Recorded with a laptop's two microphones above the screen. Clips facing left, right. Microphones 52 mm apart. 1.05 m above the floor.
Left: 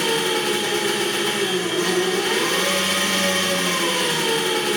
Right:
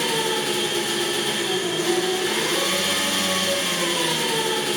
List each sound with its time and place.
0.0 s an engine running: 65° left (ahead or behind), 3 m